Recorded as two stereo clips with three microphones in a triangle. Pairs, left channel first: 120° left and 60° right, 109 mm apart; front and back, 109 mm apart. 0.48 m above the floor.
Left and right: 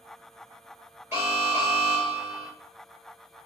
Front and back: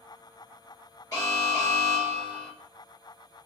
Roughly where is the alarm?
Ahead right.